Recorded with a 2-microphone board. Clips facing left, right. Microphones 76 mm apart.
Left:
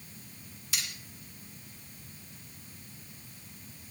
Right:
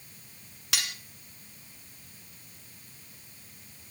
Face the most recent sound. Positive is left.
turn(degrees=-70)  # may be behind; listen again after turning